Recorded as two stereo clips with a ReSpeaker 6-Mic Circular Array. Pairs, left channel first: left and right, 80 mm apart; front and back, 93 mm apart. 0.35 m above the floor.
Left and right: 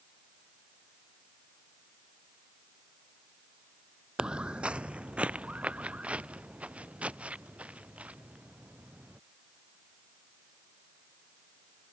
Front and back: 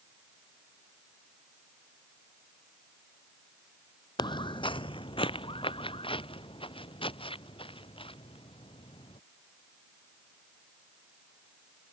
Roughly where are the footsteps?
Ahead.